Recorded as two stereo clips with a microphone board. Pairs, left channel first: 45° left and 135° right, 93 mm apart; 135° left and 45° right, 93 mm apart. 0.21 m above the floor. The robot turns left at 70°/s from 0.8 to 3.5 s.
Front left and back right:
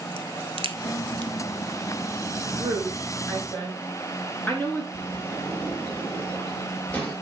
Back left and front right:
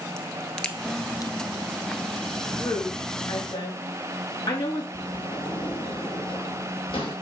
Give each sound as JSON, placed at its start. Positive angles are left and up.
{"t": 0.2, "sound": "a crack", "azimuth_deg": -145, "distance_m": 0.8}
{"t": 2.6, "sound": "a woman speaking", "azimuth_deg": 175, "distance_m": 3.0}
{"t": 4.9, "sound": "a sliding door", "azimuth_deg": 120, "distance_m": 3.0}